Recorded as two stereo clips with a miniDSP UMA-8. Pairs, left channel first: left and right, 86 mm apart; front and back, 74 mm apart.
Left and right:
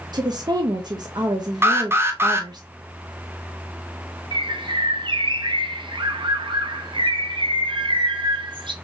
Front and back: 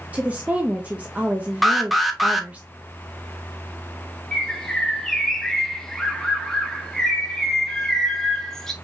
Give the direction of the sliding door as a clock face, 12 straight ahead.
No sliding door in this recording.